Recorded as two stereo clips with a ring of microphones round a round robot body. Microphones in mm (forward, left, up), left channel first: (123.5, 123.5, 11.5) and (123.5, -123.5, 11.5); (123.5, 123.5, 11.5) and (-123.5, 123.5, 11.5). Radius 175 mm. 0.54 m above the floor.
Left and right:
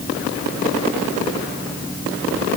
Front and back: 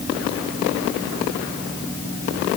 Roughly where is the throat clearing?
I don't hear throat clearing.